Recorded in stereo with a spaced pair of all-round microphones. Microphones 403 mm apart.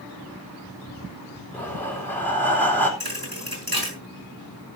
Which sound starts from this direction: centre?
Breathing, at 1.5 s.